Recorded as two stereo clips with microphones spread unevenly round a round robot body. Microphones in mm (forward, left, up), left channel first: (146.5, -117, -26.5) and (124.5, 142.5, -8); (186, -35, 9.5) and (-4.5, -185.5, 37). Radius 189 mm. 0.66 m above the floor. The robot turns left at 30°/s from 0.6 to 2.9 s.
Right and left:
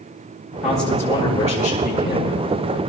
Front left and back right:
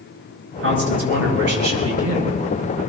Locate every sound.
0.6 s a man speaking: 120° right, 9.5 m; by 2.3 s 170° right, 9.5 m